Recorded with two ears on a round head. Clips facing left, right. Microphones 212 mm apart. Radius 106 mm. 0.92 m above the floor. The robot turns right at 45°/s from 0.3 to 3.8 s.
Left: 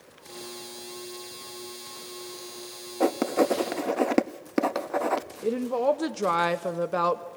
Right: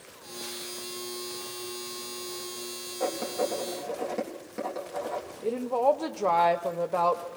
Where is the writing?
65° left (ahead or behind), 0.6 m; by 5.2 s 80° left, 0.6 m.